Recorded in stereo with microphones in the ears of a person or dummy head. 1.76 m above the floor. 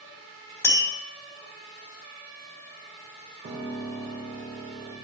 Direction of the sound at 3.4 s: 45° right (ahead or behind).